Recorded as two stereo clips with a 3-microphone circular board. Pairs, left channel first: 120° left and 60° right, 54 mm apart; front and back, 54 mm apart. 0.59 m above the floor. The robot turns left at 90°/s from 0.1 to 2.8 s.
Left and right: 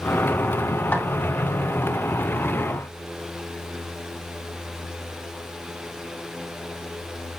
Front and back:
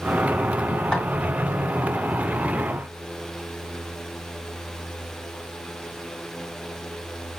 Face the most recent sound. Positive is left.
turn(degrees=-95)